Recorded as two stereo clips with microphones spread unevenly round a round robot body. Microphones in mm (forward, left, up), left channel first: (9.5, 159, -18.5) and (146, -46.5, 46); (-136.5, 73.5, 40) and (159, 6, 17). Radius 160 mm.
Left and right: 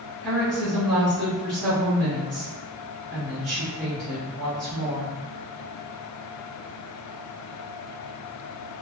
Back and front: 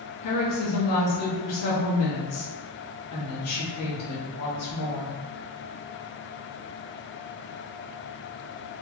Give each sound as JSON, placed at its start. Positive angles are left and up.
{"t": 0.2, "sound": "a woman speaking", "azimuth_deg": -155, "distance_m": 1.0}